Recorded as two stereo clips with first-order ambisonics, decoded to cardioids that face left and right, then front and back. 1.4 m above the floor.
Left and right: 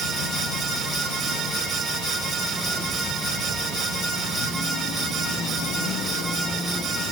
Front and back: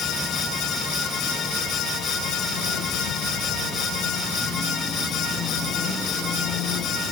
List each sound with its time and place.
Only background noise.